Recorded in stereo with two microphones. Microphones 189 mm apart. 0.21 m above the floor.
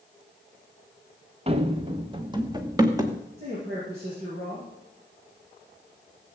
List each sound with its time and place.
1.5 s running footsteps: 35° right (ahead or behind), 1.3 m; by 3.2 s 20° right (ahead or behind), 2 m
3.4 s a man speaking: 35° right (ahead or behind), 7 m